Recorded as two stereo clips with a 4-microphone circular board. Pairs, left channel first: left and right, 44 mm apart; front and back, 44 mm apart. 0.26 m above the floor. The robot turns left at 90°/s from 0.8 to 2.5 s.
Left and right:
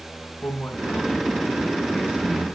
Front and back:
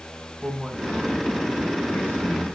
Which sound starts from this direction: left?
A man speaking, at 0.4 s.